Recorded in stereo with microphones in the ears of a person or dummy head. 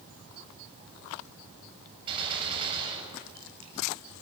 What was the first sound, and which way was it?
A gunshot, 30° right (ahead or behind).